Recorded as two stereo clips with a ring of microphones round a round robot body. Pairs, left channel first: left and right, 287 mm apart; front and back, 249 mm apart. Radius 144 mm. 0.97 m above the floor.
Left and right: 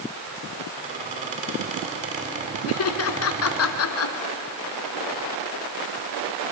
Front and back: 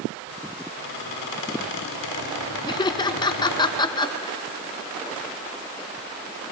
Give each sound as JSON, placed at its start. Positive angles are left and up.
{"t": 0.8, "sound": "a squeak", "azimuth_deg": -25, "distance_m": 1.8}
{"t": 2.7, "sound": "laughter", "azimuth_deg": 70, "distance_m": 1.1}